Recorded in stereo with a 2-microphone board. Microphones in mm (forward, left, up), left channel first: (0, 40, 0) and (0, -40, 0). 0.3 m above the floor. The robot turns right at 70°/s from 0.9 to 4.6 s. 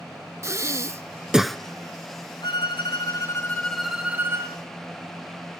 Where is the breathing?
40° right, 0.5 m; by 1.6 s 10° left, 0.5 m.